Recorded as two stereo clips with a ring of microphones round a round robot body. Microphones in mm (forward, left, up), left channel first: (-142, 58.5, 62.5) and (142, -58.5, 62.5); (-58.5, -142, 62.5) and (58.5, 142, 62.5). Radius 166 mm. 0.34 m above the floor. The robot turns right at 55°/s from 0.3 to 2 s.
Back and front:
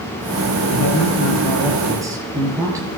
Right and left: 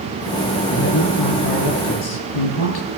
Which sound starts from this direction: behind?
A man speaking, at 0.7 s.